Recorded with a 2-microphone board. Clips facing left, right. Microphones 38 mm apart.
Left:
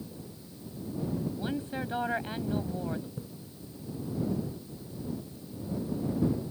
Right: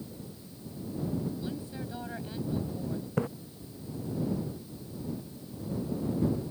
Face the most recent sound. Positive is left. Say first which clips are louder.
# right 12 dB
turn(degrees=-70)  # may be behind; listen again after turning